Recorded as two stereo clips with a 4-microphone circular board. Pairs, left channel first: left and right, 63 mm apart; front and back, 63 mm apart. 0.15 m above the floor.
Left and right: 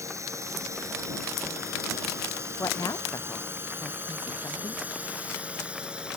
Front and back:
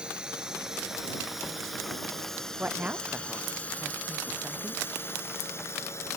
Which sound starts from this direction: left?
A woman speaking, at 2.6 s.